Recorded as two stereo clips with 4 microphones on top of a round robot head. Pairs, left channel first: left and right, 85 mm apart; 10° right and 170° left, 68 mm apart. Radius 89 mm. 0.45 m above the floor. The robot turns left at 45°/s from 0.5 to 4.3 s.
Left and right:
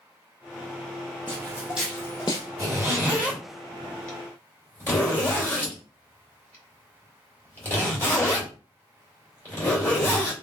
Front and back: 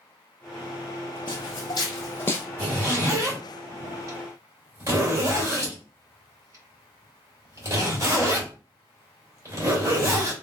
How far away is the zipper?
About 2 m.